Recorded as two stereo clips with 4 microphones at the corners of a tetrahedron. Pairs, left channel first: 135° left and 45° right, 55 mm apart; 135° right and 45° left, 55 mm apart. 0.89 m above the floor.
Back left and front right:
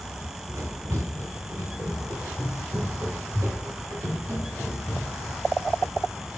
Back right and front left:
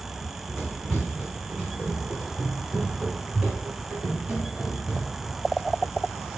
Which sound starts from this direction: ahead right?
Running footsteps, at 0.2 s.